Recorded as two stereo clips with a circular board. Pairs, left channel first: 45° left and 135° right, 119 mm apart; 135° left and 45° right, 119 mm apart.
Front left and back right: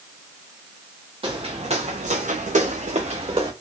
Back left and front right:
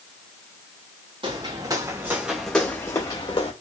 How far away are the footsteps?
About 1.3 m.